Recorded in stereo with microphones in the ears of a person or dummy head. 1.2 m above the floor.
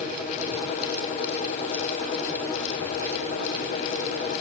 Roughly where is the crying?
No crying in this recording.